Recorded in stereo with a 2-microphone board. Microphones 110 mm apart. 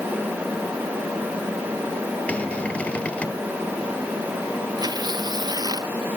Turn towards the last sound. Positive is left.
turn(degrees=-40)  # may be behind; listen again after turning